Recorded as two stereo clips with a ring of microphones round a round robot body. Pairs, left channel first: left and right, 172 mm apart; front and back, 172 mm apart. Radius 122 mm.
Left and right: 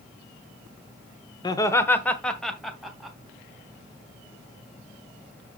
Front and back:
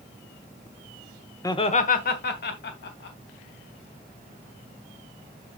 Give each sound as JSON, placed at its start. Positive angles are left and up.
{"t": 1.4, "sound": "laughter", "azimuth_deg": 55, "distance_m": 0.9}